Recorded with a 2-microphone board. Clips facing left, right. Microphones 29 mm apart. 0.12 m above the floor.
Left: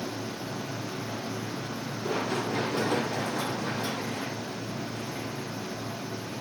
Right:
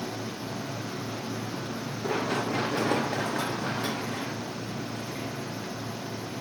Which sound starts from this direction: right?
Running footsteps, at 2.0 s.